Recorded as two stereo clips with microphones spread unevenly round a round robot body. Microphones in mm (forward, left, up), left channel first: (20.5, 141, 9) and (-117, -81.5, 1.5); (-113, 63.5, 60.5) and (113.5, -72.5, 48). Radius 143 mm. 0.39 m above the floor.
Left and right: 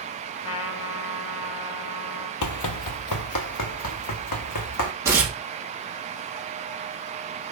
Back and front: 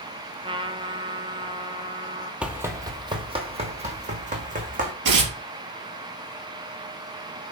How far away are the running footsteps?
About 0.8 m.